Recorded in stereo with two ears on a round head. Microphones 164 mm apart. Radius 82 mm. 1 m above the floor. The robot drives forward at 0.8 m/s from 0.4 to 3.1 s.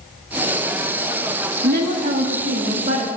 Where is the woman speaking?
55° right (ahead or behind), 1.6 m; by 3.1 s 35° right (ahead or behind), 2.5 m.